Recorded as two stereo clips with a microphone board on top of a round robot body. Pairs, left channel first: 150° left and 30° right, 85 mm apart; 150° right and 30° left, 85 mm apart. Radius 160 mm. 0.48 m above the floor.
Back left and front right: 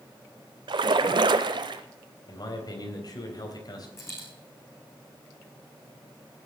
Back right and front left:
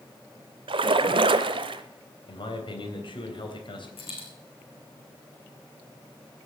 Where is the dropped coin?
150° right, 4 m.